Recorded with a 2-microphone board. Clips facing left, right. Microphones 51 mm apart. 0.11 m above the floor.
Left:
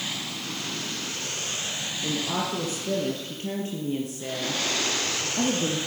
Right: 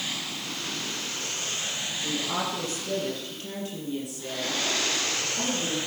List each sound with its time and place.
2.0 s a woman speaking: 20° left (ahead or behind), 3.5 m; by 5.8 s 50° left (ahead or behind), 2.5 m